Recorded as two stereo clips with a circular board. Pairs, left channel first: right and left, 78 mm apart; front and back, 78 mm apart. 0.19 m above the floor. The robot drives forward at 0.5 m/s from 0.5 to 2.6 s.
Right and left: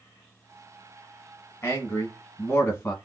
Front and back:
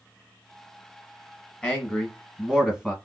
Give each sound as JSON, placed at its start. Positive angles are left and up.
{"t": 1.6, "sound": "a man speaking", "azimuth_deg": -70, "distance_m": 1.2}